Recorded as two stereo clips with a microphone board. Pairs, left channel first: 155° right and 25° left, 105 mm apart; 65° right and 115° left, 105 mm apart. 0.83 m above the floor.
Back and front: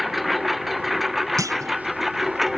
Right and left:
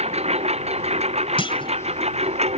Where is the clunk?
35° right.